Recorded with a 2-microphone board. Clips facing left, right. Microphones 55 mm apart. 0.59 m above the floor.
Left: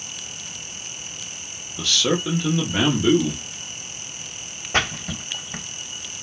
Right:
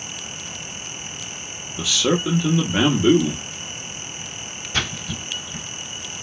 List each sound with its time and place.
1.8 s a man speaking: 10° right (ahead or behind), 0.9 m
4.7 s a splash: 45° left (ahead or behind), 1.0 m